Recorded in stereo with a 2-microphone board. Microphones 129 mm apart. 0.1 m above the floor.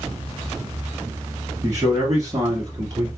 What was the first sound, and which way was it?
A man speaking, 25° right (ahead or behind).